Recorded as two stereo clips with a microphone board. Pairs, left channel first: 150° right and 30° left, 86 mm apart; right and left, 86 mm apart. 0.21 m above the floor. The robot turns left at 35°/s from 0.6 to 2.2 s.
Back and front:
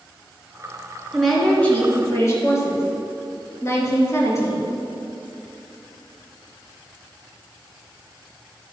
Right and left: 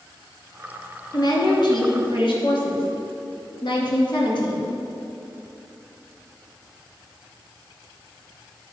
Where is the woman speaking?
60° right, 2.5 m; by 4.7 s 95° right, 2.5 m.